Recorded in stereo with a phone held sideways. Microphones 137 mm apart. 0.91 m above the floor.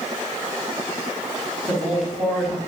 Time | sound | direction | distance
1.7 | a woman speaking | centre (ahead or behind) | 6.5 m